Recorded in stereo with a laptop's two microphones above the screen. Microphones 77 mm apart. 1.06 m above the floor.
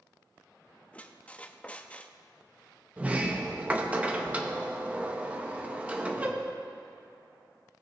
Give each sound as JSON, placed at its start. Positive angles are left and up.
{"t": 0.9, "sound": "a squeak", "side_deg": 15, "distance_m": 0.6}
{"t": 3.0, "sound": "a sliding door", "side_deg": -15, "distance_m": 0.6}